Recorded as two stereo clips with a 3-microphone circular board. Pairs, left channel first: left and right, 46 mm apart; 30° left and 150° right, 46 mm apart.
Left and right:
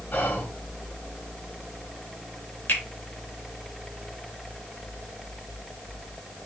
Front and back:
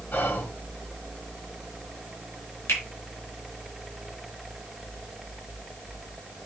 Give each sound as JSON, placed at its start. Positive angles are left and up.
{"t": 0.1, "sound": "whispering", "azimuth_deg": 55, "distance_m": 2.5}
{"t": 2.7, "sound": "a finger snap", "azimuth_deg": 45, "distance_m": 5.0}